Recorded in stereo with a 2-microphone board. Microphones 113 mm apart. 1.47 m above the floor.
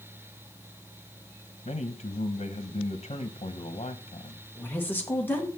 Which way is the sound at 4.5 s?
15° left (ahead or behind).